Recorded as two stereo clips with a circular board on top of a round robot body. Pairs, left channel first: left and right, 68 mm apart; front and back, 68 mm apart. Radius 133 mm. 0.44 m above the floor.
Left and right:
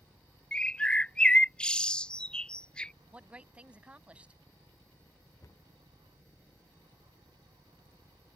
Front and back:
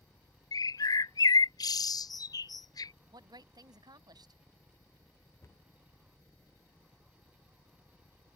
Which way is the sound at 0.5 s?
15° left.